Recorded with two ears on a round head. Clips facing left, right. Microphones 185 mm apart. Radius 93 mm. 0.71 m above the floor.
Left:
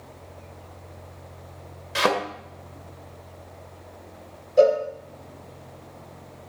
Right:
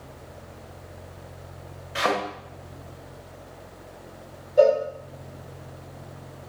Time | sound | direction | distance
1.9 | a thud | 55° left (ahead or behind) | 1.1 m
4.6 | a cowbell | 35° left (ahead or behind) | 1.3 m